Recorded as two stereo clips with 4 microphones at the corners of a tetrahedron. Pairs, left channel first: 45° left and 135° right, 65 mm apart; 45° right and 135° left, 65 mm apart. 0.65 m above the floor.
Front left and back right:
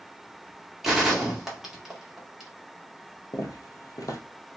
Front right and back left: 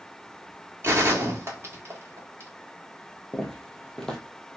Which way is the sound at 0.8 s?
140° left.